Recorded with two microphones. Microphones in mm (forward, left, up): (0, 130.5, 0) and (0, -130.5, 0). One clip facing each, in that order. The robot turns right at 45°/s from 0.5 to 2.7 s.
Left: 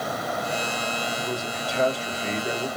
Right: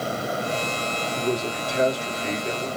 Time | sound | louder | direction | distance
1.2 | a man speaking | right 5 dB | 50° right | 1.5 m